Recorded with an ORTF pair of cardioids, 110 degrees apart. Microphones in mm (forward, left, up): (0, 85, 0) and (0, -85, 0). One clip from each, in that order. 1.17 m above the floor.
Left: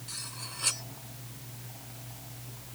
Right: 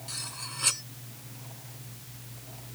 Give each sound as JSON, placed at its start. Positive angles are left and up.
{"t": 0.1, "sound": "cutlery clinking", "azimuth_deg": -15}